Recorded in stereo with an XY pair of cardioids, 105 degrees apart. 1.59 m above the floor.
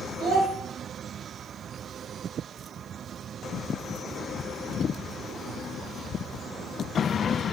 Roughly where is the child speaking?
Ahead right.